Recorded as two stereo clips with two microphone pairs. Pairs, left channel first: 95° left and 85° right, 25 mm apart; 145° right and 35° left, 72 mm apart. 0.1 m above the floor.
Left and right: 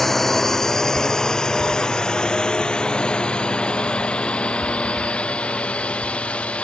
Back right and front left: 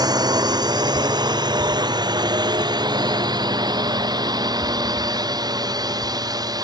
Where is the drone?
15° left; by 6.6 s 60° left.